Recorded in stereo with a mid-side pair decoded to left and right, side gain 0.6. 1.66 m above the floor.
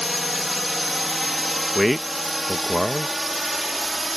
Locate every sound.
0.0 s a drone: 10° left; by 4.2 s 20° right
1.8 s a man speaking: straight ahead